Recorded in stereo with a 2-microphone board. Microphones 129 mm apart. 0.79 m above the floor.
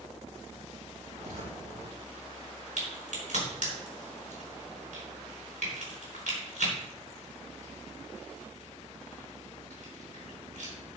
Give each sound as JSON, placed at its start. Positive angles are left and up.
{"t": 1.1, "sound": "footsteps", "side_deg": -65, "distance_m": 3.5}
{"t": 2.8, "sound": "a crack", "side_deg": -75, "distance_m": 4.5}